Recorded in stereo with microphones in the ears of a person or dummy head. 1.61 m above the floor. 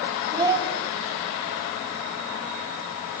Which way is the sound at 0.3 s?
20° right (ahead or behind).